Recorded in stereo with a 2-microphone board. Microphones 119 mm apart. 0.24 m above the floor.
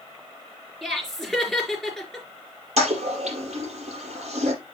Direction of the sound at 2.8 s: 70° right (ahead or behind).